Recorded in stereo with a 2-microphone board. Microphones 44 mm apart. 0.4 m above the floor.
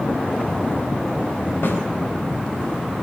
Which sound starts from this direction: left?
A snare drum, at 1.6 s.